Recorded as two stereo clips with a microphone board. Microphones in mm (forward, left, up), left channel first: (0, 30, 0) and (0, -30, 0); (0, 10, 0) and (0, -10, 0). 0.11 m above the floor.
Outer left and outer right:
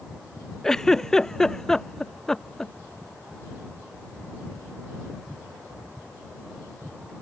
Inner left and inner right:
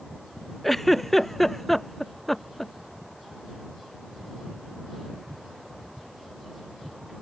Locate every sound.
0.6 s a giggle: 10° left (ahead or behind)